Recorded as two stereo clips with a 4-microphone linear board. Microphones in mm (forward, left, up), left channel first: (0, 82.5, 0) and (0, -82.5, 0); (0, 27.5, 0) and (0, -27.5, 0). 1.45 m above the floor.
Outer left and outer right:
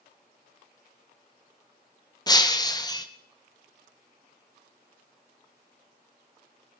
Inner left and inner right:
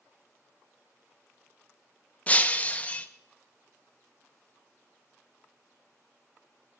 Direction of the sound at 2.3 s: 25° left (ahead or behind).